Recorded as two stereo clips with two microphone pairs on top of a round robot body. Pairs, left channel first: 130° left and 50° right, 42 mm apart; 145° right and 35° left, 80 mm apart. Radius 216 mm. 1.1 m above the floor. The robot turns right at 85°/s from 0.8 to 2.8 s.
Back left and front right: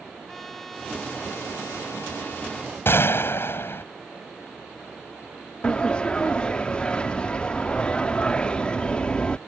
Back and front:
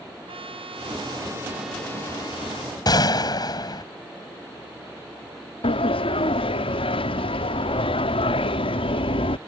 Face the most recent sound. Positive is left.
turn(degrees=-160)